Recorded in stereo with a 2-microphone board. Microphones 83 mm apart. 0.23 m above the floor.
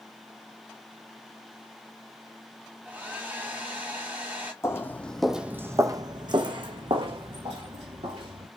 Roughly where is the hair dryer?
Right.